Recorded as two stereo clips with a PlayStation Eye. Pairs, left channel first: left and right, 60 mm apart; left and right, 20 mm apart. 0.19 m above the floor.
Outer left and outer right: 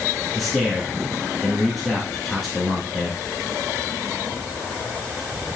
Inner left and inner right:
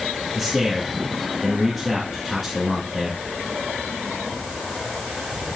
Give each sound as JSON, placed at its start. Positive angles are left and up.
{"t": 0.3, "sound": "a man speaking", "side_deg": 0, "distance_m": 2.5}